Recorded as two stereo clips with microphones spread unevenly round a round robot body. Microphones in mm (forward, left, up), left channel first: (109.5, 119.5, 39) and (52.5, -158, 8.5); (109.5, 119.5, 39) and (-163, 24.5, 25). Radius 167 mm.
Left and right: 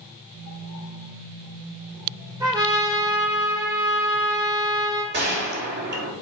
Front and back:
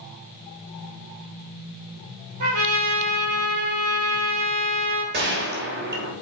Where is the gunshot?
130° right, 1.7 m.